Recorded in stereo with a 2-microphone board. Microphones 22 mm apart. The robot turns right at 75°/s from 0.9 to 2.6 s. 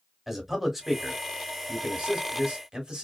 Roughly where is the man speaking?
Centre.